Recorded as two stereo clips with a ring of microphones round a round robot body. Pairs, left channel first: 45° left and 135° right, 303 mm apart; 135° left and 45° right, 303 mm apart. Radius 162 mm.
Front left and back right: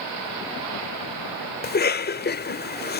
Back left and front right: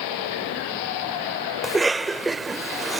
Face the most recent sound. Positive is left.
turn(degrees=45)